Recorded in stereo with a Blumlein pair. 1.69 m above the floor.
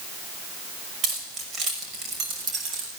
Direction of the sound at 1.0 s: 25° right.